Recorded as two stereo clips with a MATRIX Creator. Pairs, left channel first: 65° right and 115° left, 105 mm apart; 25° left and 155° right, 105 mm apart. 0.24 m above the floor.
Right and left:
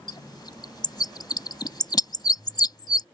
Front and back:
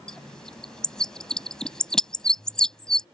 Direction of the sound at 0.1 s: 60° right.